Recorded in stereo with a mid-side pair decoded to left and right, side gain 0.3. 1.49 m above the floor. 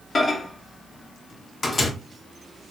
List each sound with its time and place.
0.1 s a microwave: 50° left, 0.7 m